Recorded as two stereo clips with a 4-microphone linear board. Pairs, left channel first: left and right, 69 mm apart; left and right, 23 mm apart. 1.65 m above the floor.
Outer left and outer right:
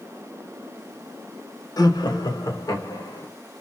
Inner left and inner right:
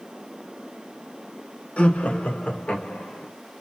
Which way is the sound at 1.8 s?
65° left (ahead or behind).